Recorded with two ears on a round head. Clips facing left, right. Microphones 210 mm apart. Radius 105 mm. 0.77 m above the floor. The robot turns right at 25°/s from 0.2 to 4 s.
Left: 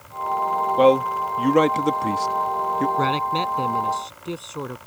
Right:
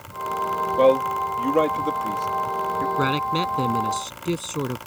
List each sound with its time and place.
0.8 s a man speaking: 15° left (ahead or behind); by 2.9 s 45° left (ahead or behind)
3.0 s a man speaking: 10° right (ahead or behind); by 4.8 s 35° right (ahead or behind)